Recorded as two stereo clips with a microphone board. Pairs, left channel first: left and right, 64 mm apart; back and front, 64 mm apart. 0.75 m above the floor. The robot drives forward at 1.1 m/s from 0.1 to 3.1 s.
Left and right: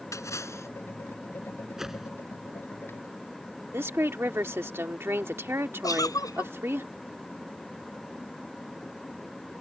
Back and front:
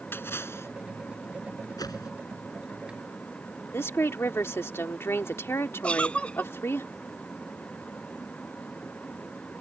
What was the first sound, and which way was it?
A splash, 125° left.